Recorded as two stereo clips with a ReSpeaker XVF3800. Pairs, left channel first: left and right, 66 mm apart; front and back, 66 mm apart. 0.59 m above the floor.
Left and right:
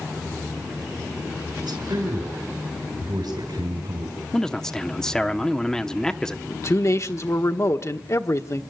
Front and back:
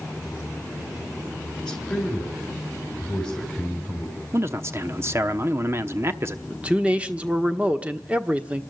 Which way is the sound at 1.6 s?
85° right.